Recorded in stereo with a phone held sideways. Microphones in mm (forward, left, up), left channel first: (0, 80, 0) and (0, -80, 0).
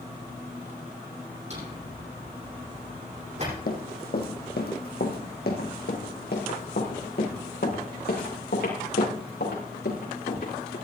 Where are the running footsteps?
70° left (ahead or behind), 2.5 m; by 10.8 s 75° left (ahead or behind), 6.5 m.